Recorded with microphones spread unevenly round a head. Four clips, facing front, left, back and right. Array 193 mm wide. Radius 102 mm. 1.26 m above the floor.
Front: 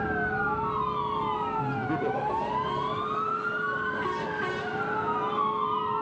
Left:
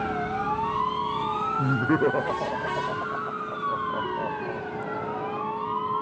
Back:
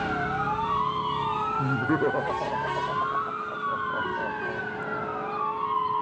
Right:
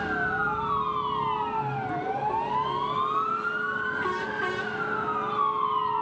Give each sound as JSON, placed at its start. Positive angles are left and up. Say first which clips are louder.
{"t": 1.6, "sound": "laughter", "louder": "left 7 dB, back 4 dB", "azimuth_deg": 115, "distance_m": 0.9}